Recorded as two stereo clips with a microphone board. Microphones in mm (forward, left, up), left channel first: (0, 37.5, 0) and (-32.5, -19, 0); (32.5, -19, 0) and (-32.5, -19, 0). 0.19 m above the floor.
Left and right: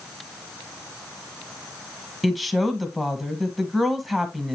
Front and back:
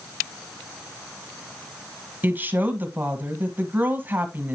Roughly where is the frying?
I don't hear frying.